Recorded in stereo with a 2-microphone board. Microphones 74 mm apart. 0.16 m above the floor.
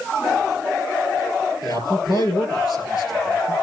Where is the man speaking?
60° left (ahead or behind), 4 m.